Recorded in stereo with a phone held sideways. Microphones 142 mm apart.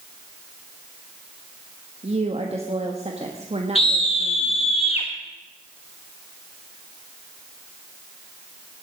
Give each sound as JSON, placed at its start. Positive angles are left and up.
{"t": 2.0, "sound": "a woman speaking", "side_deg": -50, "distance_m": 1.4}
{"t": 3.8, "sound": "a scream", "side_deg": 45, "distance_m": 0.9}